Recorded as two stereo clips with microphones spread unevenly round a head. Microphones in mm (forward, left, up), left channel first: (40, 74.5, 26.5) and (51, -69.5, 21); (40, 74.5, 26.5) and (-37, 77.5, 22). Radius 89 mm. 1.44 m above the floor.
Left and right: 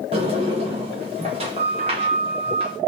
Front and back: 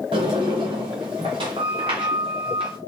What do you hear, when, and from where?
0.1 s a sliding door: 145° right, 0.9 m